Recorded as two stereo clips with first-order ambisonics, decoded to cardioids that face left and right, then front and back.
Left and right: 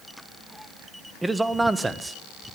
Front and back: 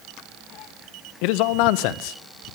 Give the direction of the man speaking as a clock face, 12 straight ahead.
12 o'clock.